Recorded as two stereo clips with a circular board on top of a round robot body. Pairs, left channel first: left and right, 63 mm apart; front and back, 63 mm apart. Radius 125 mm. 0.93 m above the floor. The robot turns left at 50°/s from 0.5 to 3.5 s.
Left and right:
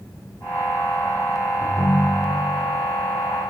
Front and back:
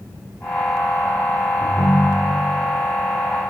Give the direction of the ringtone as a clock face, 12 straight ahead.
10 o'clock.